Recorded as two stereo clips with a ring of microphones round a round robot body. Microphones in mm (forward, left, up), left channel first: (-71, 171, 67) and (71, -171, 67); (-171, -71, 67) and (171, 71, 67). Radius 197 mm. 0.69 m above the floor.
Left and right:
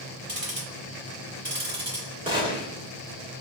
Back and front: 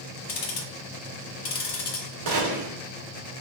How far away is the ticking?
About 1.5 m.